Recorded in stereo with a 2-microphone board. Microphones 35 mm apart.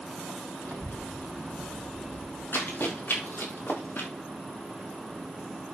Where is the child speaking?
70° left (ahead or behind), 4 m; by 2.4 s 80° left, 3.5 m.